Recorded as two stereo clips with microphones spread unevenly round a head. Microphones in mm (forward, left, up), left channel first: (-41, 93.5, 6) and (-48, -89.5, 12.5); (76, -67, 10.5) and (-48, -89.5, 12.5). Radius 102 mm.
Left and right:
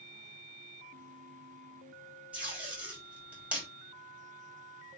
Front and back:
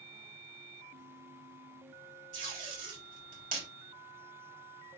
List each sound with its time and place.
2.3 s tape being pulled: 175° right, 4.5 m